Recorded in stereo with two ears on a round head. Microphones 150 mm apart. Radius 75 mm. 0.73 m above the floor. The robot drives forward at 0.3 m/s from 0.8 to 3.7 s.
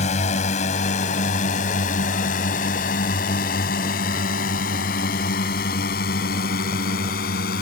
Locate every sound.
0.0 s a drone: 40° left (ahead or behind); by 7.6 s 60° left (ahead or behind)